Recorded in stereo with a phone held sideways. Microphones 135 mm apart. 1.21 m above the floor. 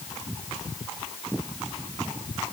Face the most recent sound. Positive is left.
No sound to turn to.